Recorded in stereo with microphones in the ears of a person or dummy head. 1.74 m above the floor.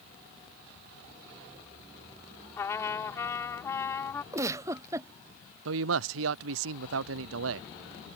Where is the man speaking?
85° right.